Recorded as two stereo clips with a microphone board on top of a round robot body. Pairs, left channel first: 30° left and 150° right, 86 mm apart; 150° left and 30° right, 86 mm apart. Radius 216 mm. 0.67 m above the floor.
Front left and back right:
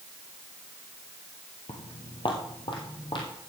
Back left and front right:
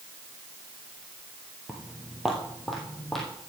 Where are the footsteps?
50° left, 1.2 m; by 3.3 s 65° left, 2.5 m.